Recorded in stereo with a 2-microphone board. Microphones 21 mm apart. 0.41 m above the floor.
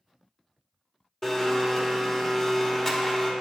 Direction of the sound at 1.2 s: 20° left (ahead or behind).